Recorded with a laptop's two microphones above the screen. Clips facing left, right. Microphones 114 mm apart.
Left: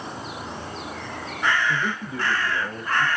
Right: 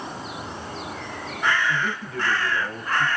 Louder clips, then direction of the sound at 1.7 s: Even; 25° left (ahead or behind).